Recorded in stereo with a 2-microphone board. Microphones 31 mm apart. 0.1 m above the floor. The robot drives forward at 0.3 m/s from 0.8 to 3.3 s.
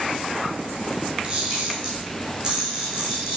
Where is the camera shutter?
35° right (ahead or behind), 1.0 m; by 3.4 s 25° right (ahead or behind), 1.6 m.